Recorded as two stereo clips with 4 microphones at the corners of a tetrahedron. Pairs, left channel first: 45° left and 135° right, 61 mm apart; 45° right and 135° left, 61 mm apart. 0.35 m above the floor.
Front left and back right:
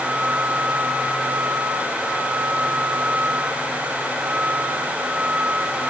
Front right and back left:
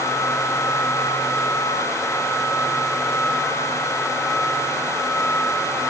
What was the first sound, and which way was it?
Only background noise.